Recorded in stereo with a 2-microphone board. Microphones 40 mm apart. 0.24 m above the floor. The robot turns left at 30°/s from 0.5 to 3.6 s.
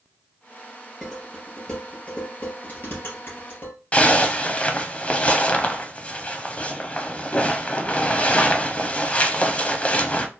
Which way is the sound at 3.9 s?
30° left (ahead or behind).